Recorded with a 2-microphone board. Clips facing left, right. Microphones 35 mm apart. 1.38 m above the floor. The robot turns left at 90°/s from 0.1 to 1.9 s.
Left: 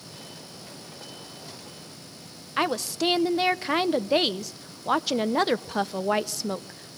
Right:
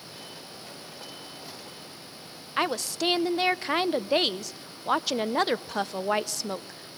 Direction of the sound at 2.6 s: Centre (ahead or behind).